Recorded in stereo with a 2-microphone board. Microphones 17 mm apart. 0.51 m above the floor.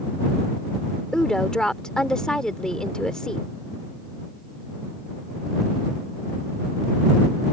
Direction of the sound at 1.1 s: 50° left (ahead or behind).